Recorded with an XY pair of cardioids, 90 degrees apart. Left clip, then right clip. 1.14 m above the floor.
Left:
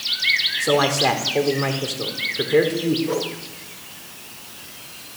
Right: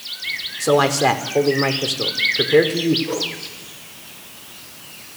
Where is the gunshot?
I don't hear a gunshot.